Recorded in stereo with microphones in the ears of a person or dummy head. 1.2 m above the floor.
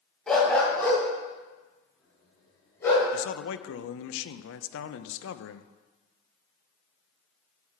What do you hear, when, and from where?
0.3 s a dog barking: centre (ahead or behind), 2.5 m; by 3.1 s 10° left (ahead or behind), 6 m
3.1 s a man speaking: 70° left (ahead or behind), 0.6 m